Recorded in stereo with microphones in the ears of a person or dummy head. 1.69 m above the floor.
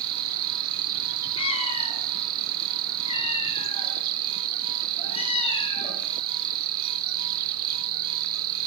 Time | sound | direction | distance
0.0 | an insect | 55° right (ahead or behind) | 2.5 m
1.4 | a cat meowing | 25° left (ahead or behind) | 8 m